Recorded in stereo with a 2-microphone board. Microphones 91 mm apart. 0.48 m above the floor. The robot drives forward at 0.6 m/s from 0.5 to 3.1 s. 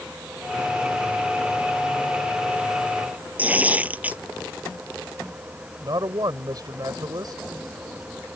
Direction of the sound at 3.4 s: 15° right (ahead or behind).